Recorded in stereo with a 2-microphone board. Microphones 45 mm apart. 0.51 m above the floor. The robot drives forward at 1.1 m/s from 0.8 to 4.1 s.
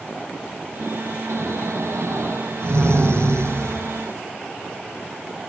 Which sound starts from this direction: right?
Snoring, at 1.3 s.